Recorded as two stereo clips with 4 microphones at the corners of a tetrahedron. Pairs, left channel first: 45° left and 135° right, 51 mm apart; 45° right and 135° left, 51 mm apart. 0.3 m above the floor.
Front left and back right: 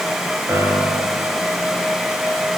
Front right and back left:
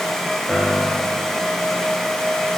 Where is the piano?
120° right, 6.5 m.